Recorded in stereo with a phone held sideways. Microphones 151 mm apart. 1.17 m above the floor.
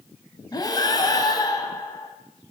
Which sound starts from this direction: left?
Breathing, at 0.5 s.